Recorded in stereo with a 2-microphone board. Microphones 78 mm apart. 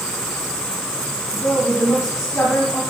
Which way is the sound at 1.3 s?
40° left (ahead or behind).